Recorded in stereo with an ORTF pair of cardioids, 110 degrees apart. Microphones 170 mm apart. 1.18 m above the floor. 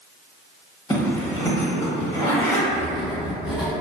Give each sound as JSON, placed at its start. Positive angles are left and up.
{"t": 0.9, "sound": "a zipper", "azimuth_deg": 20, "distance_m": 1.0}
{"t": 2.7, "sound": "writing", "azimuth_deg": -5, "distance_m": 0.8}